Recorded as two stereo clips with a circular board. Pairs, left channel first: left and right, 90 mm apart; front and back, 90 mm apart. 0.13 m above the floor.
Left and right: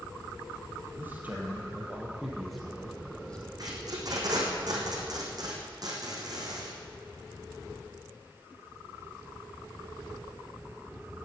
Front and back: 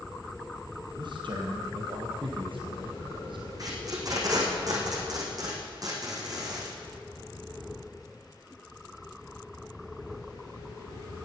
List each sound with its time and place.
1.0 s a man speaking: 155° right, 3.5 m; by 3.5 s 165° left, 4 m
3.6 s tape being pulled: 135° right, 2.5 m